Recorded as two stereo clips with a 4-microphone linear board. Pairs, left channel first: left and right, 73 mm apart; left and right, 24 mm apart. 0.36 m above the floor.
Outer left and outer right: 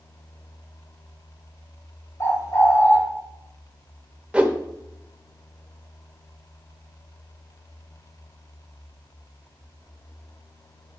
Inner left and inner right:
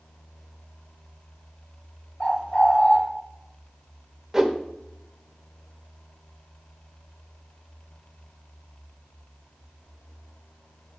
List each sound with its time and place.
2.2 s a bird: 40° left (ahead or behind), 1.9 m
4.3 s a whoosh: 15° right (ahead or behind), 0.8 m